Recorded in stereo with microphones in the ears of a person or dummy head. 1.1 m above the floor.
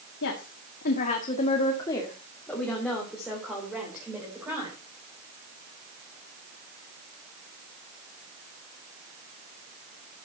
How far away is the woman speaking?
About 1.8 m.